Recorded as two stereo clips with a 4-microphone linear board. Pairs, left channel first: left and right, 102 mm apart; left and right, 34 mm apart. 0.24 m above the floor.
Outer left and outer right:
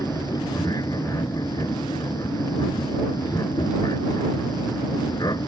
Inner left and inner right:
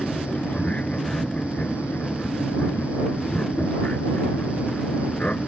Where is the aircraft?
40° left (ahead or behind); by 5.5 s 45° left (ahead or behind).